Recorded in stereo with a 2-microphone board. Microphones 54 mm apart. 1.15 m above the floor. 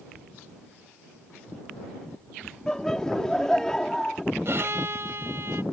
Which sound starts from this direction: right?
A violin, at 4.5 s.